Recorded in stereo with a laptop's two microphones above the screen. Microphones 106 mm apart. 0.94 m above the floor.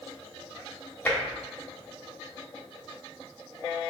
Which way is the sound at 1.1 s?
15° left (ahead or behind).